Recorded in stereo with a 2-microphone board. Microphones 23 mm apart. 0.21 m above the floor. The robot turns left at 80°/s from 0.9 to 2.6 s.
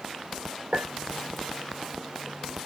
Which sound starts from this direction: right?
A clink, at 0.7 s.